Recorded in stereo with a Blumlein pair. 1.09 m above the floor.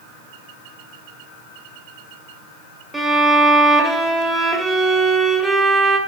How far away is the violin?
About 2 m.